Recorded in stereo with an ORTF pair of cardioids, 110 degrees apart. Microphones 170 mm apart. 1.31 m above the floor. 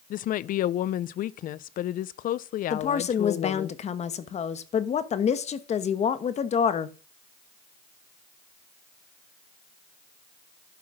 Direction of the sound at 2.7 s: 45° left.